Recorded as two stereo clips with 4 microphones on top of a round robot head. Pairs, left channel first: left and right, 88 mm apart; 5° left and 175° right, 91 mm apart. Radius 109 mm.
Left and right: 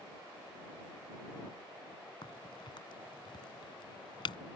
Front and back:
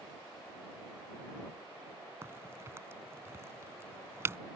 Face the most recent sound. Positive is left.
turn(degrees=125)